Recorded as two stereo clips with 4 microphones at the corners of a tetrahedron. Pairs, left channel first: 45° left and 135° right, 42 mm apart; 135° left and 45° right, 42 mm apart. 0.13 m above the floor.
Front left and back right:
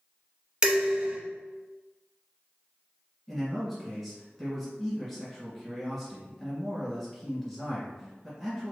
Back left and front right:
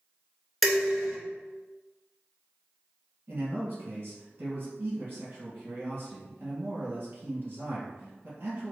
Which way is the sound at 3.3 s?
45° right.